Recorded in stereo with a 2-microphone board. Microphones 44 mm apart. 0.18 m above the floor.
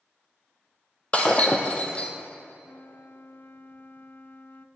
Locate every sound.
1.1 s breaking glass: 30° left (ahead or behind), 1.7 m
2.6 s a flute: 50° left (ahead or behind), 0.7 m